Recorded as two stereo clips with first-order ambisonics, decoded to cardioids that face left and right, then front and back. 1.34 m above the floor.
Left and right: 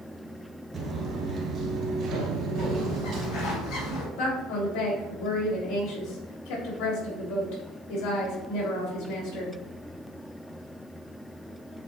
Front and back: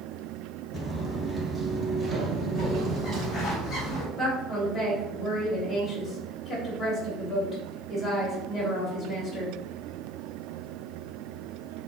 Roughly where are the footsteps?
Ahead right.